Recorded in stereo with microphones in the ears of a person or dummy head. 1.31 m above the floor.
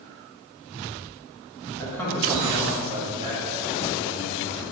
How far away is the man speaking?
About 1.8 m.